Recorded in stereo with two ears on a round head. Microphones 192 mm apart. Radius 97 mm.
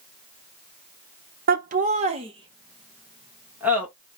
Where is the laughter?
45° right (ahead or behind), 0.9 m; by 3.9 s 5° right (ahead or behind), 1.7 m.